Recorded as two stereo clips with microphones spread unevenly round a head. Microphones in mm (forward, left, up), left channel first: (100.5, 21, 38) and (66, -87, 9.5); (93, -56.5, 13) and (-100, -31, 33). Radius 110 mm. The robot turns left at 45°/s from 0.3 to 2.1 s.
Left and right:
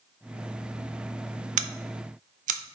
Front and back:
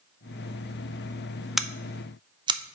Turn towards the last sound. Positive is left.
turn(degrees=-125)